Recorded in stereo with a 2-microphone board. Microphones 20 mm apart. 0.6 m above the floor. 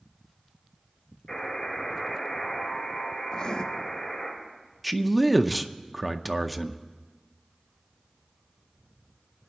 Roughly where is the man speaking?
Centre.